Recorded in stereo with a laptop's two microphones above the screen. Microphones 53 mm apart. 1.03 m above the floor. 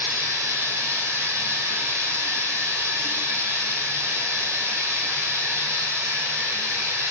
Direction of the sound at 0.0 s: 65° right (ahead or behind).